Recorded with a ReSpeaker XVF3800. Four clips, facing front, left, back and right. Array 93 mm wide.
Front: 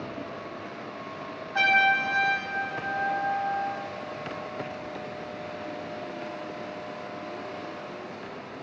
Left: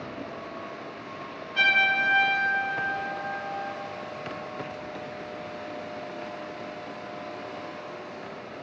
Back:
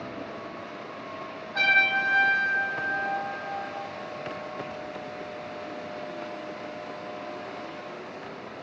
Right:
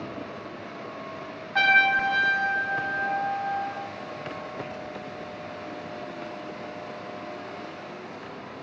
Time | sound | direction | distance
1.6 | a trumpet | 70° right | 1.1 m